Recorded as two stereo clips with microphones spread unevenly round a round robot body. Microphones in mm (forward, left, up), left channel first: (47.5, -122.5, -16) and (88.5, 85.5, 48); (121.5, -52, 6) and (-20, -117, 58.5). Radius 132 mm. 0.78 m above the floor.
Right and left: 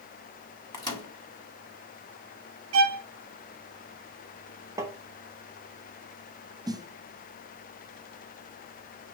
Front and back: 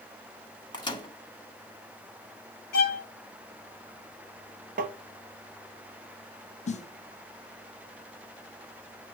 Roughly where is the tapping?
Behind.